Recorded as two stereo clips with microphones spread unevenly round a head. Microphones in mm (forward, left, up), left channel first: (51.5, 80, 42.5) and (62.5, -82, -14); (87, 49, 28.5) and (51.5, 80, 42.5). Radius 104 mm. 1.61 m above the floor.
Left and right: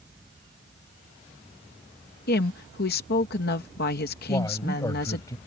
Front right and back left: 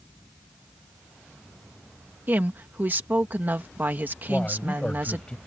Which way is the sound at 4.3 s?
30° left.